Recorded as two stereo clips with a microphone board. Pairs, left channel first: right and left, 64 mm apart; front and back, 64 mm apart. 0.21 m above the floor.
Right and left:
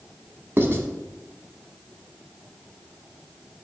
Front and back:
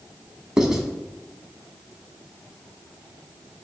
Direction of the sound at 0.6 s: 105° left.